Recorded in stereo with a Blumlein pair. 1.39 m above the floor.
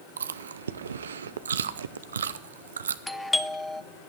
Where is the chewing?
65° right, 0.6 m.